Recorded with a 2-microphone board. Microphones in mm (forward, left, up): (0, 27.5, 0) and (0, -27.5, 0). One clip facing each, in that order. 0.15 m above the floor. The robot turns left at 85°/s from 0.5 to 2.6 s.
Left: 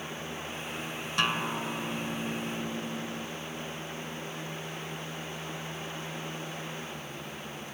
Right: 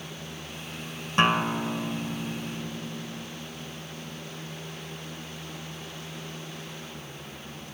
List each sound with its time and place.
1.2 s a guitar: 120° right, 0.7 m; by 3.3 s 120° left, 0.7 m